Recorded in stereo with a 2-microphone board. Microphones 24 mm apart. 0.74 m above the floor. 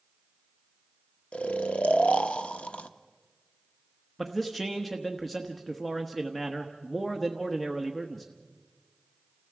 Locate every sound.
1.3 s snoring: 65° left (ahead or behind), 0.8 m
4.2 s a man speaking: centre (ahead or behind), 1.2 m